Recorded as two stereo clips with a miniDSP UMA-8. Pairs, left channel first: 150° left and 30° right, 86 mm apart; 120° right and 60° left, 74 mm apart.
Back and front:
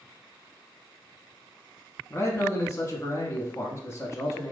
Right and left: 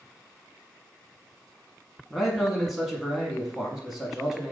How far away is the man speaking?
About 1.3 m.